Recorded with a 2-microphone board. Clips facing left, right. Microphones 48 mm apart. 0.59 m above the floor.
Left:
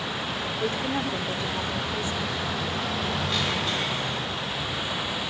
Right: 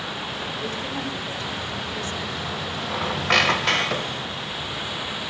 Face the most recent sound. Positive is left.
turn(degrees=-80)